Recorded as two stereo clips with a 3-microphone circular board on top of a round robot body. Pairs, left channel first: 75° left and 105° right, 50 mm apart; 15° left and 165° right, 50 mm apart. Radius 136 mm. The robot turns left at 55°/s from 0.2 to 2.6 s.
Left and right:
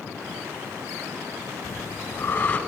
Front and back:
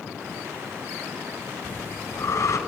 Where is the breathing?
60° left, 3.5 m; by 2.6 s 5° left, 3.5 m.